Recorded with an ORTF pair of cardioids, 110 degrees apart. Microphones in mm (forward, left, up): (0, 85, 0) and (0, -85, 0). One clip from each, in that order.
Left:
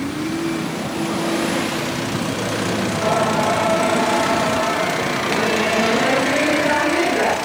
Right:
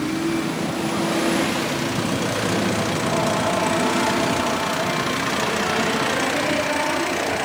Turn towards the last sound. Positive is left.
turn(degrees=50)